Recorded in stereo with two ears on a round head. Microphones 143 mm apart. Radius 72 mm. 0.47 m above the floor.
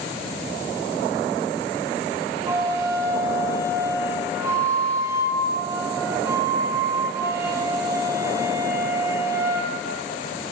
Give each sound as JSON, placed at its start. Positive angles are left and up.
{"t": 2.5, "sound": "a flute", "side_deg": -15, "distance_m": 2.0}